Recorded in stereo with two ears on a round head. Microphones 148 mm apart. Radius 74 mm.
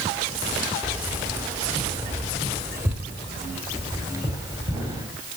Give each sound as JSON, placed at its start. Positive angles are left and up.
{"t": 0.8, "sound": "keys jangling", "side_deg": -10, "distance_m": 1.5}